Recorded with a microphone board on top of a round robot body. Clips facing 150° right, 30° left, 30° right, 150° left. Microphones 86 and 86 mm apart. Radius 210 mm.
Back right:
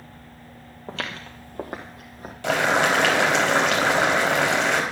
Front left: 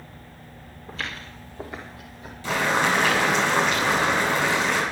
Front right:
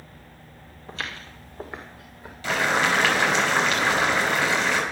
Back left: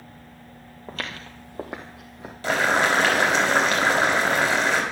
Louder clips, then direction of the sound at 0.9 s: Back right 2 dB, back left 1 dB; 165° right.